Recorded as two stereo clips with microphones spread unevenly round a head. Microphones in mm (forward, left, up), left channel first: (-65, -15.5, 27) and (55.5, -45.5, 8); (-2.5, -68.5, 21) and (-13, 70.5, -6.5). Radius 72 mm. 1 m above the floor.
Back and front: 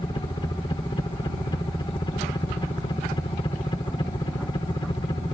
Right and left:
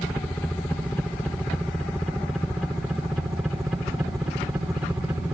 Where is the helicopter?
165° right; by 5.3 s 150° left.